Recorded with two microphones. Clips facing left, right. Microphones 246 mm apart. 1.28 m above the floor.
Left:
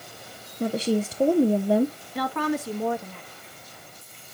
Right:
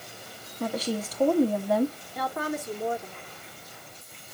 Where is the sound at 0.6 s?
30° left (ahead or behind), 0.7 m.